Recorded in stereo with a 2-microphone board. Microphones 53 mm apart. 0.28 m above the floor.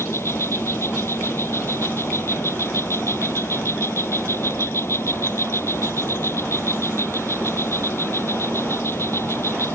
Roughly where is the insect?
Left.